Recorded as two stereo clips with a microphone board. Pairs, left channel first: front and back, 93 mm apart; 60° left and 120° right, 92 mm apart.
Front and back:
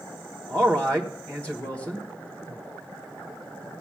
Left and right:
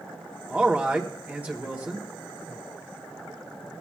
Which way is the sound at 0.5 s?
65° right.